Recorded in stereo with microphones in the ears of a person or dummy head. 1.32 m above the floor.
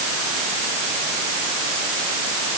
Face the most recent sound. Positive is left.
No sound to turn to.